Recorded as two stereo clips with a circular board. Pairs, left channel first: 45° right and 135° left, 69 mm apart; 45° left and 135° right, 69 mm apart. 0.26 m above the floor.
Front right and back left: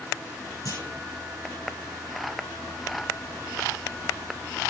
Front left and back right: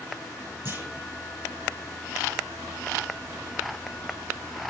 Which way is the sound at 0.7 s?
80° right.